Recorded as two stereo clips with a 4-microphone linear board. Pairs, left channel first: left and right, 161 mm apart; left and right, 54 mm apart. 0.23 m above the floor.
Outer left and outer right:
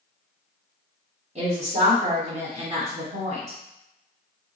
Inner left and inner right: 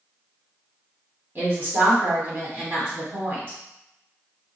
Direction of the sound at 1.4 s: 45° right (ahead or behind).